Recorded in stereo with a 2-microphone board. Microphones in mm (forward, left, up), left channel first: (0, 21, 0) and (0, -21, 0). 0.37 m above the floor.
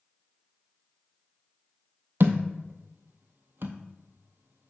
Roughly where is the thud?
Right.